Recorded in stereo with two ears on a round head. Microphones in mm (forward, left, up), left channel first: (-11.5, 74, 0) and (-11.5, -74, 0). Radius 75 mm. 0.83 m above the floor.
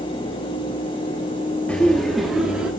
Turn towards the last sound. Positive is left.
turn(degrees=-5)  # may be behind; listen again after turning